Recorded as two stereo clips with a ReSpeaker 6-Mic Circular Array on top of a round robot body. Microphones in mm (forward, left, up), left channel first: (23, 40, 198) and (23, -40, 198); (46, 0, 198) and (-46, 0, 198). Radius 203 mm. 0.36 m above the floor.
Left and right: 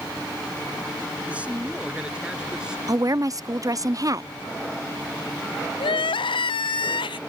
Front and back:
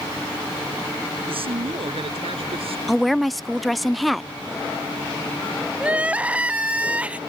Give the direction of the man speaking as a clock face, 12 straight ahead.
5 o'clock.